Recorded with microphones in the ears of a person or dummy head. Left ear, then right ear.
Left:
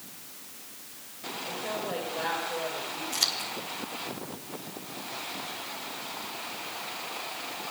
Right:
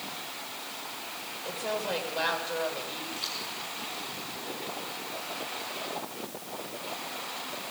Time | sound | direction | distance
1.4 | a woman speaking | 50° right (ahead or behind) | 6.5 m
3.1 | scissors | 50° left (ahead or behind) | 1.9 m